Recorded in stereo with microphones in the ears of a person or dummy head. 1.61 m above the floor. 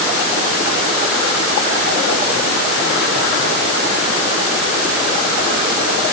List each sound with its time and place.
Only background noise.